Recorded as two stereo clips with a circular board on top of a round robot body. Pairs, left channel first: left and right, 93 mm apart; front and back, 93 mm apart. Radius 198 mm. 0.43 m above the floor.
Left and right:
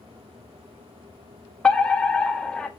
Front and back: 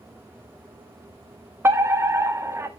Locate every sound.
1.6 s a fire alarm: 160° left, 1.8 m